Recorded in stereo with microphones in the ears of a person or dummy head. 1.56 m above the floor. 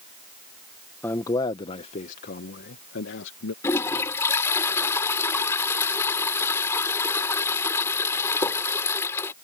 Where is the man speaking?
15° left (ahead or behind); by 3.5 s 75° left (ahead or behind).